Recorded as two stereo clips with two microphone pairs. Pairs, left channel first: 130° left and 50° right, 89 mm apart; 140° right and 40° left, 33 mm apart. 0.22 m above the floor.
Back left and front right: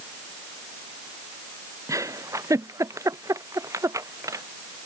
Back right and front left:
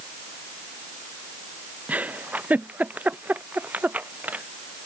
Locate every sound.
1.9 s a giggle: straight ahead